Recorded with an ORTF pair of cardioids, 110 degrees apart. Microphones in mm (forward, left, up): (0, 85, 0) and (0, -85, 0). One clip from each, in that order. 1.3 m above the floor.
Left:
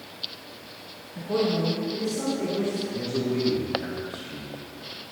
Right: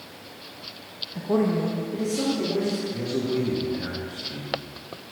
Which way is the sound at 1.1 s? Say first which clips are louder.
Right 1 dB; 30° right.